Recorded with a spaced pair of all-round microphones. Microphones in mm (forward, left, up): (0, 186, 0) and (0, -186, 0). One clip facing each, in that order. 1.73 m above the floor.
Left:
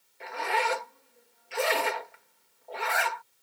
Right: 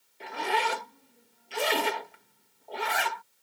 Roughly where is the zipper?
Right.